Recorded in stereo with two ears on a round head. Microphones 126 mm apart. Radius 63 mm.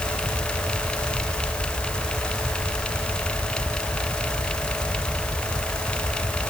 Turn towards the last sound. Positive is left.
No sound to turn to.